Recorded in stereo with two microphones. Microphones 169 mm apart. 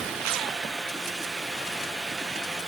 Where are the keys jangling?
I don't hear keys jangling.